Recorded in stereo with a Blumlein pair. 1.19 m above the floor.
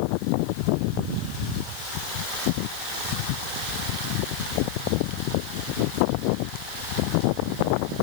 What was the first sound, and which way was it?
Only background noise.